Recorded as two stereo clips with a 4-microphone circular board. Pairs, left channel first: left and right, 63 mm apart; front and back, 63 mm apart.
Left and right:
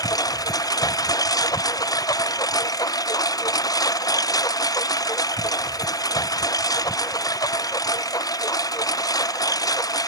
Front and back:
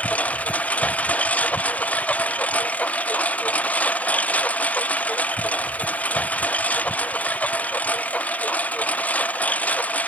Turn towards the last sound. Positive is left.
turn(degrees=65)